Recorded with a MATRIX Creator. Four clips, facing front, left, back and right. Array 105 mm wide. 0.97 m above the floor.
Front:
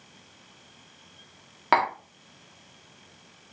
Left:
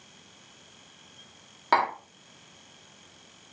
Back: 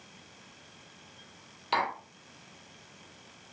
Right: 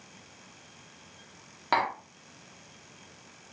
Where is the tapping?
10° left, 1.6 m.